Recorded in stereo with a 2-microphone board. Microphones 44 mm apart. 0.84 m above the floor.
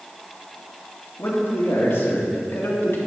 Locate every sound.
1.2 s a man speaking: 65° left (ahead or behind), 1.7 m